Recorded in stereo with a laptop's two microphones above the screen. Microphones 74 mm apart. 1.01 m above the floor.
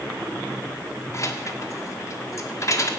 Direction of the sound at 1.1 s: 45° left (ahead or behind).